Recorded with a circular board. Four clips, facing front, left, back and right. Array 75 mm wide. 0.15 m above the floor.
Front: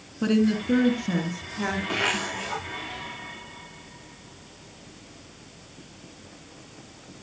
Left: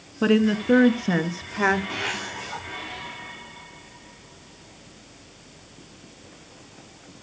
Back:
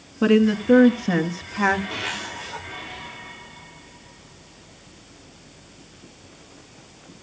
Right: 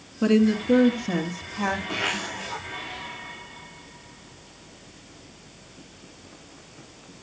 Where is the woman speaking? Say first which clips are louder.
Even, back 5 dB; 140° left, 1.5 m; by 1.8 s 130° left, 2.5 m.